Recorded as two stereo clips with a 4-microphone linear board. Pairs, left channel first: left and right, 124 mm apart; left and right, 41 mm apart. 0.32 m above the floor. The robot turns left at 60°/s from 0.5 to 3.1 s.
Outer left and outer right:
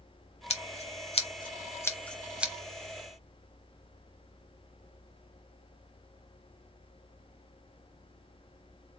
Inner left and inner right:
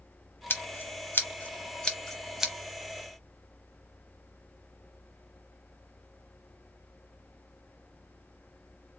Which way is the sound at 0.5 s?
60° left (ahead or behind).